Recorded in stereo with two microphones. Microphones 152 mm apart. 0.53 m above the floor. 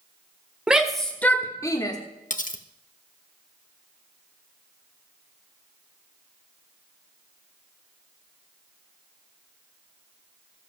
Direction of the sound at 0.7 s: 5° right (ahead or behind).